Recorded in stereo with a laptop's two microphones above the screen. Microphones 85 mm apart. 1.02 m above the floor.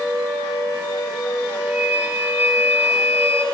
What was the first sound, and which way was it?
A flute, 25° right (ahead or behind).